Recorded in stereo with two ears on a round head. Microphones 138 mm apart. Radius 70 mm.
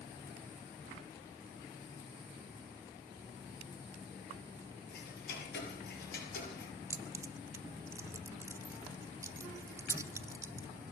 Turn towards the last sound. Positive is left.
turn(degrees=-20)  # may be behind; listen again after turning